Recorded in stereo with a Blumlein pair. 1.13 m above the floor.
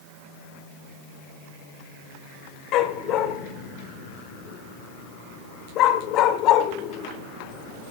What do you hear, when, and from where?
2.7 s a dog barking: 35° left, 1.8 m